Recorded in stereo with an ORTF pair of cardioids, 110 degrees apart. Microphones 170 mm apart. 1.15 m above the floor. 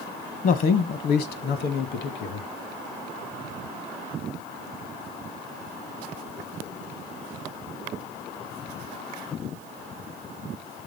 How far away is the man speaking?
About 0.9 m.